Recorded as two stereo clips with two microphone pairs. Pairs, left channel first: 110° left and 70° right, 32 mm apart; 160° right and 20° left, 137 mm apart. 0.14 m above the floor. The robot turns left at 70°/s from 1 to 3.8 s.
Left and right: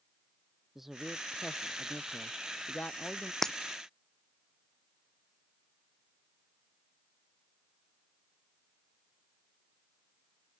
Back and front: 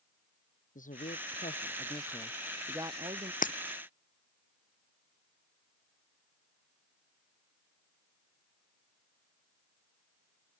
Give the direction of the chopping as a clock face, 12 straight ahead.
No chopping in this recording.